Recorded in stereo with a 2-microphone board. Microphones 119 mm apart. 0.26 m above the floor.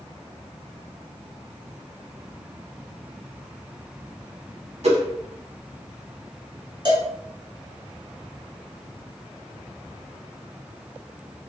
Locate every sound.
4.8 s a whoosh: 65° right (ahead or behind), 0.7 m
6.8 s a cowbell: 40° right (ahead or behind), 0.8 m